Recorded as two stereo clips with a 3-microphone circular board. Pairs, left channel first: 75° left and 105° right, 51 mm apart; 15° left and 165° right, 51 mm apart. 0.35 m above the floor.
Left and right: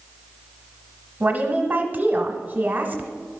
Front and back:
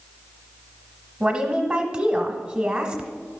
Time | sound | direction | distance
1.2 | a woman speaking | 115° right | 1.1 m